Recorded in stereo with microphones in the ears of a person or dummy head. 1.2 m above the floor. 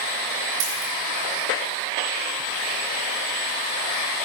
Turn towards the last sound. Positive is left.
turn(degrees=-75)  # may be behind; listen again after turning